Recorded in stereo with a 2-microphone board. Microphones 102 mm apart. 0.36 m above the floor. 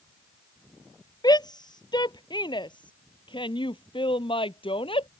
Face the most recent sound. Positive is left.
turn(degrees=60)  # may be behind; listen again after turning